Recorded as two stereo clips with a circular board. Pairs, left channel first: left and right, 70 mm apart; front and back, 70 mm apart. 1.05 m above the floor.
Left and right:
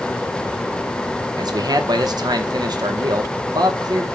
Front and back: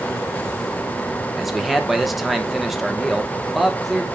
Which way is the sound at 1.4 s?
95° right.